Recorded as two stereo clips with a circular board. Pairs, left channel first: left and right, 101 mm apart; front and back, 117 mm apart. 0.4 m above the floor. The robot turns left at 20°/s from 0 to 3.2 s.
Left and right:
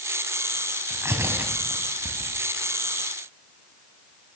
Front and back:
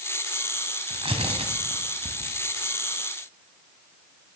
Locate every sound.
0.9 s tearing paper: 145° right, 2.5 m; by 2.3 s 175° right, 2.5 m